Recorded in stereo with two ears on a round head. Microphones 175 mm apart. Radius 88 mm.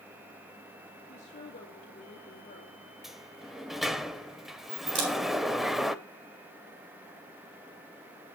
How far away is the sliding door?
About 0.7 m.